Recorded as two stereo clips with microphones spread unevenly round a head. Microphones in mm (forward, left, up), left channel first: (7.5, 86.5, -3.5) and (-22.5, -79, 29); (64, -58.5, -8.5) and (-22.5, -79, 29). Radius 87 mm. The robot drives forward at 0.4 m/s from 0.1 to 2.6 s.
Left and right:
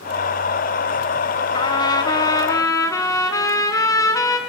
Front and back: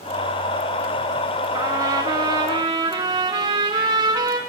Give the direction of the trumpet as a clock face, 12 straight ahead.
7 o'clock.